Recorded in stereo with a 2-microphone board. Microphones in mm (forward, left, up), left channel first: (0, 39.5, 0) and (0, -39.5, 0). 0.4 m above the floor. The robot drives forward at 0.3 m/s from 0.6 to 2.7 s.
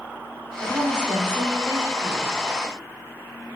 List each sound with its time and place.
0.6 s a woman speaking: 65° right (ahead or behind), 6.5 m